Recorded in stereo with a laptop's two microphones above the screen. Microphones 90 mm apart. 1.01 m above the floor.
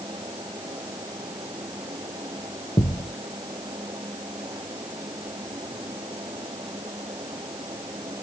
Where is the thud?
50° left (ahead or behind).